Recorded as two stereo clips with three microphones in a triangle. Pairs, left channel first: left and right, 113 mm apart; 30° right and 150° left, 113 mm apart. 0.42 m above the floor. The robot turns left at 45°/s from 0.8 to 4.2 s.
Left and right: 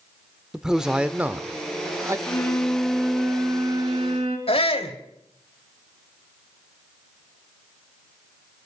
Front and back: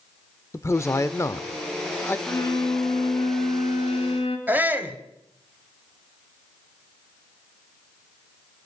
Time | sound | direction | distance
0.5 | a man speaking | 10° right | 0.8 m
2.3 | a violin | 25° left | 4.5 m
4.5 | a shout | 75° left | 2.5 m